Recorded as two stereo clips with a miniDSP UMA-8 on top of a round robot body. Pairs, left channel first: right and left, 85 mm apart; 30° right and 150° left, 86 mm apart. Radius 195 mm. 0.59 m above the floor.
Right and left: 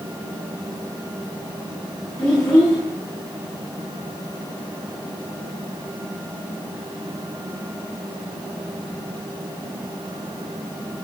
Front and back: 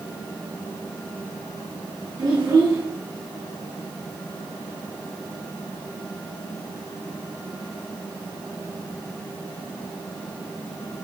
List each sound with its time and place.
2.2 s a child speaking: 155° right, 2.5 m